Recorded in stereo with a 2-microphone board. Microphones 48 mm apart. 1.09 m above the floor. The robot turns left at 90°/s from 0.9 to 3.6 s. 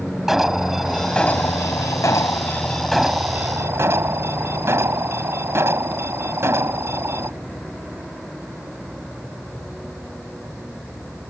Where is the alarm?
175° right; by 7.3 s 60° right.